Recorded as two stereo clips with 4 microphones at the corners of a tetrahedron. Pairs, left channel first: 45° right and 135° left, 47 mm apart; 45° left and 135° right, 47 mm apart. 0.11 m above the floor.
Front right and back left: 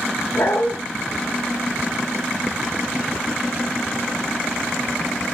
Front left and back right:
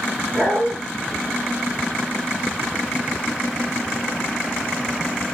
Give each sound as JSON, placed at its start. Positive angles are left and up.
{"t": 0.3, "sound": "a dog barking", "azimuth_deg": -65, "distance_m": 4.5}